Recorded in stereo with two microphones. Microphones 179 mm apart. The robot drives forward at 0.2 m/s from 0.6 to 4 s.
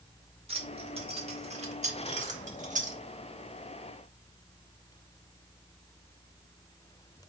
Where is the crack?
No crack in this recording.